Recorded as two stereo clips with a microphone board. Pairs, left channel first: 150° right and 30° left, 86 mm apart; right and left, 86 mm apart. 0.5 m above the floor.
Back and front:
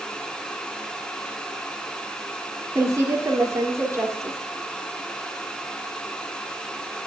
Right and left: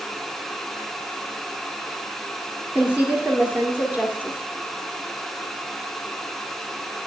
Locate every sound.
2.8 s a woman speaking: 35° left, 1.3 m